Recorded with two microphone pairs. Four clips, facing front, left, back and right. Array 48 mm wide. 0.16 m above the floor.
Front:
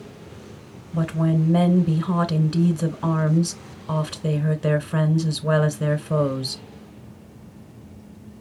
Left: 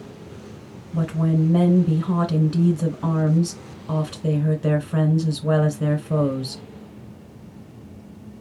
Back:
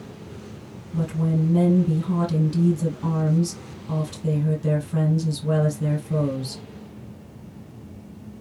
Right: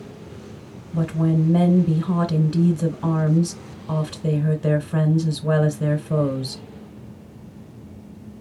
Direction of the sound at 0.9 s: 5° left.